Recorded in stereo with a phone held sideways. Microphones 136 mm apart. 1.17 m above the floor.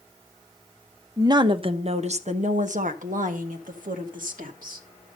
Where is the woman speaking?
25° right (ahead or behind), 0.8 m; by 4.8 s 85° right, 2.5 m.